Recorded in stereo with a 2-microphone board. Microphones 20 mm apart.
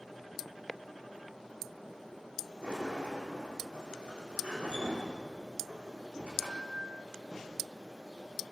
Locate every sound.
2.6 s a sliding door: 70° right (ahead or behind), 9.5 m